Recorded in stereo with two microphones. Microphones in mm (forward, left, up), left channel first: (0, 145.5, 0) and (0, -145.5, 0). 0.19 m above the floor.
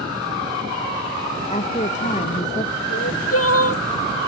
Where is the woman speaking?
25° left (ahead or behind).